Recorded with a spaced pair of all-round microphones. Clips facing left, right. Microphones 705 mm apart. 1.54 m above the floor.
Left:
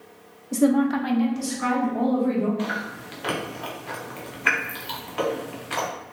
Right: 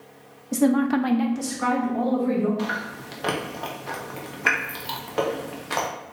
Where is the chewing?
70° right (ahead or behind), 0.8 m.